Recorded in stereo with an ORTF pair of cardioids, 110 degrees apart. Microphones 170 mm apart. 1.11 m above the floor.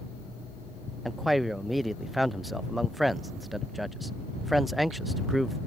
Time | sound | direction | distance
1.1 | a man speaking | straight ahead | ?